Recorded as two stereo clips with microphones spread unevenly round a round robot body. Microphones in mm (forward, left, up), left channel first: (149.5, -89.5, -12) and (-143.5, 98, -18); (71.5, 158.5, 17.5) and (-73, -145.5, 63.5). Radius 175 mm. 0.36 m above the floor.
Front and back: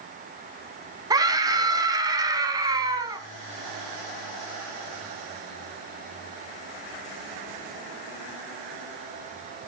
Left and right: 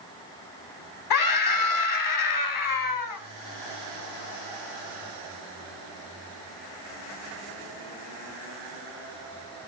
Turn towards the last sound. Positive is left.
turn(degrees=70)